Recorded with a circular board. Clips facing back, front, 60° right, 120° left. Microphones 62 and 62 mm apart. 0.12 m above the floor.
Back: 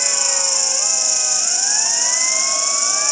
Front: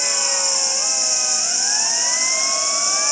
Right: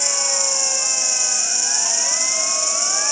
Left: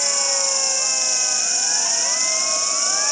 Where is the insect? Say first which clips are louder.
Even, even; 5° right, 1.8 m.